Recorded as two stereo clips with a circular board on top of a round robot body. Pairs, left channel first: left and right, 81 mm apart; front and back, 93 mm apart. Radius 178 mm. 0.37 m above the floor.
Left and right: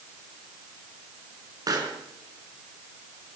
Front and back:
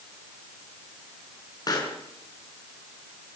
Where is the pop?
45° right, 5 m.